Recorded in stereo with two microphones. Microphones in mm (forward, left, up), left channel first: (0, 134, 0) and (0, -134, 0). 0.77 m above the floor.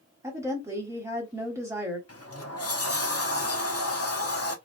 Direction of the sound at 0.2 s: 10° right (ahead or behind).